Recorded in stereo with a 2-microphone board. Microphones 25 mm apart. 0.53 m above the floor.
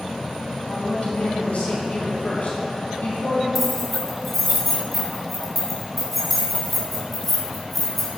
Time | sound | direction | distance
0.7 | a woman speaking | 75° left (ahead or behind) | 3 m
3.5 | keys jangling | 5° right (ahead or behind) | 3 m